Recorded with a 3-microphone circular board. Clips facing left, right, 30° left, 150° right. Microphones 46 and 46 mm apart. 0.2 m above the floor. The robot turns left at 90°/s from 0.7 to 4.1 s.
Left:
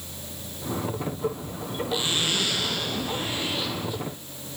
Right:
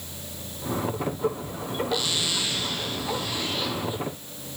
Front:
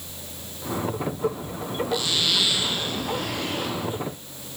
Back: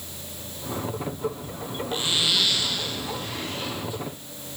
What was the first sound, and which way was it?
A zipper, 160° left.